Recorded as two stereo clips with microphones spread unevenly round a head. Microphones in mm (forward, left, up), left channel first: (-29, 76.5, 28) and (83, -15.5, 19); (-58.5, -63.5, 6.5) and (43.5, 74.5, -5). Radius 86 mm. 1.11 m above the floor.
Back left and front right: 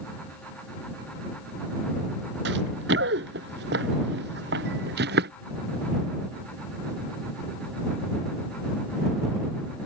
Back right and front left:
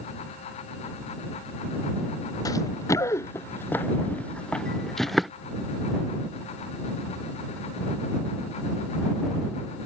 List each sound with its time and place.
2.5 s running footsteps: 55° right; by 5.3 s 35° right